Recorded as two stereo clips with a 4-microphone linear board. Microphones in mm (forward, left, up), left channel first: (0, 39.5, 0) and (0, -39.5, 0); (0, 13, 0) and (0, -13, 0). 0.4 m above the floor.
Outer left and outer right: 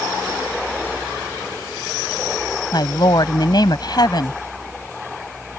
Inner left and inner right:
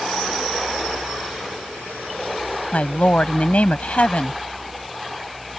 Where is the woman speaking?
65° left (ahead or behind).